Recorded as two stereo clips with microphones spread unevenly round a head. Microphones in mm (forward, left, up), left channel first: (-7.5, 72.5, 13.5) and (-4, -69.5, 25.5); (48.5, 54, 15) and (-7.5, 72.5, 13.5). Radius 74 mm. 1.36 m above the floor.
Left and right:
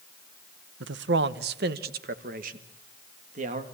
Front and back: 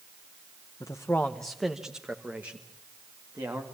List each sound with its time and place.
0.8 s a man speaking: 85° right, 0.8 m; by 3.6 s 130° right, 1.9 m